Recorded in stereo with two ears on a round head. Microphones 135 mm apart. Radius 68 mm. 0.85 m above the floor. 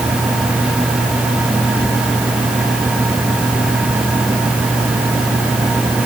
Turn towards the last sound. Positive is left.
No sound to turn to.